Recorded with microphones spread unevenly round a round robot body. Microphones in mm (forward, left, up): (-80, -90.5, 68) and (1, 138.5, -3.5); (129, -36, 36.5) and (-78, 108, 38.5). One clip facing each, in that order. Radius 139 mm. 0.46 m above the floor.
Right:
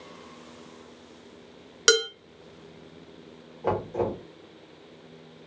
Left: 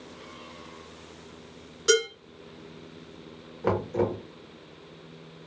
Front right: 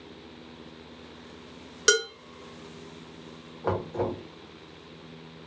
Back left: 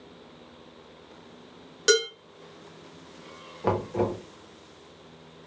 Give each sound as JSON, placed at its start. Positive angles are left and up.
{"t": 1.9, "sound": "dishes clattering", "azimuth_deg": -110, "distance_m": 1.7}
{"t": 3.6, "sound": "knocking", "azimuth_deg": 110, "distance_m": 1.2}